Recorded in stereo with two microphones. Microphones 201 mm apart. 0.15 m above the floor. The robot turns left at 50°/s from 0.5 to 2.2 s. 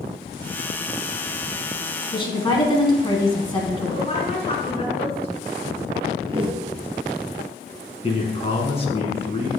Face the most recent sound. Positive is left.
turn(degrees=30)  # may be behind; listen again after turning